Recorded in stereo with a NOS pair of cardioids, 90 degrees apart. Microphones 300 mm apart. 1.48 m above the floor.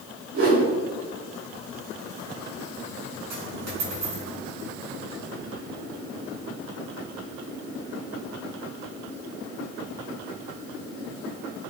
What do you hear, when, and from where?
0.3 s a whoosh: 50° right, 7 m
3.3 s a dropped coin: 55° right, 9 m